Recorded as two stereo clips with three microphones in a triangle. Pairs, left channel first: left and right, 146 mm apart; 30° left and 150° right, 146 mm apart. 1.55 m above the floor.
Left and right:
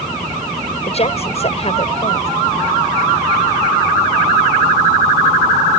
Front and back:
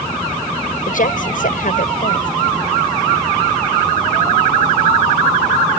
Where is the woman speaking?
50° left.